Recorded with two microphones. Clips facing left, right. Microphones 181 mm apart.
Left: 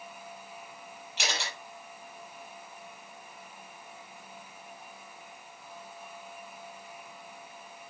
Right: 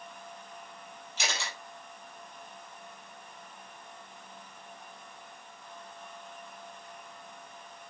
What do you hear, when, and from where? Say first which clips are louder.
1.2 s a camera shutter: left 1 dB; 60° left (ahead or behind), 6 m